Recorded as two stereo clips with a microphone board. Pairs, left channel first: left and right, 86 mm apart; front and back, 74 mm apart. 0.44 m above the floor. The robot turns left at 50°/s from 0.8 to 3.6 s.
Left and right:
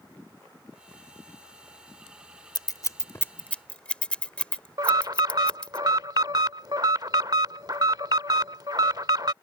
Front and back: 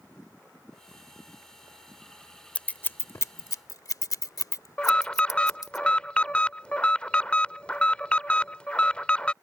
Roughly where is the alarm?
Right.